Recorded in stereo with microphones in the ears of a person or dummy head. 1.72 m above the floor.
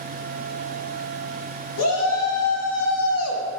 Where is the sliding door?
I don't hear a sliding door.